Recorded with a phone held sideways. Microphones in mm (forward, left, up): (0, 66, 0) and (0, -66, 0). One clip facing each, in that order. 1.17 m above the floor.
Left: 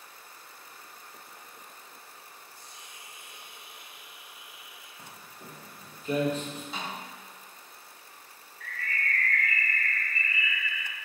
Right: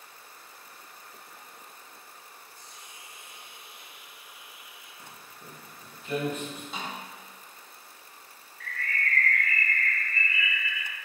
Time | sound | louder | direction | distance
2.5 | a hiss | even | 55° left (ahead or behind) | 3 m
5.0 | footsteps | left 1 dB | 55° left (ahead or behind) | 3 m
6.7 | a snare drum | even | centre (ahead or behind) | 3 m
8.6 | a bird | right 2 dB | 75° right (ahead or behind) | 1.1 m